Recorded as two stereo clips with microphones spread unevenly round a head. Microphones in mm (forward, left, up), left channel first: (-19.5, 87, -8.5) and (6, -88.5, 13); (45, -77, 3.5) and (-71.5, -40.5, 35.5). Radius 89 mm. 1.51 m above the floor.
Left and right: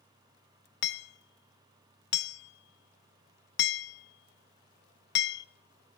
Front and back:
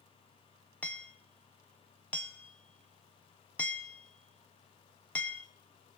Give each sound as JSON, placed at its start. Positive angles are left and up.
{"t": 0.8, "sound": "hammering", "azimuth_deg": 65, "distance_m": 0.7}